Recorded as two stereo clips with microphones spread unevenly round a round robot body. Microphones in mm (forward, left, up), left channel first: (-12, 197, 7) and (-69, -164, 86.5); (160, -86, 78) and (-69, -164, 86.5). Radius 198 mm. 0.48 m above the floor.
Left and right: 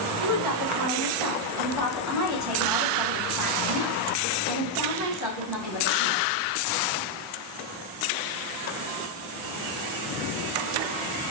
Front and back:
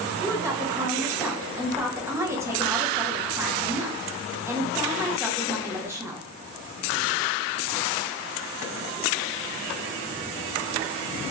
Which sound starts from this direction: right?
A woman speaking, at 0.2 s.